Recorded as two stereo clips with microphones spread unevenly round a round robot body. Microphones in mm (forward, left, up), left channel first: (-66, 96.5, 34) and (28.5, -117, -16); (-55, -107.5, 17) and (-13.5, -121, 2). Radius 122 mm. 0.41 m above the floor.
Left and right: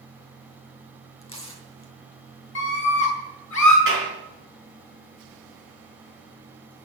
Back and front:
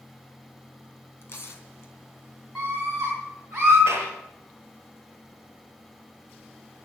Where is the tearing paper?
175° right, 3.5 m.